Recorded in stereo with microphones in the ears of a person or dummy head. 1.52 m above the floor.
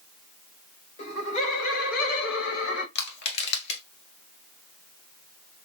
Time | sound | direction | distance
1.0 | laughter | 40° left (ahead or behind) | 2 m
3.0 | crushing | 60° left (ahead or behind) | 1.5 m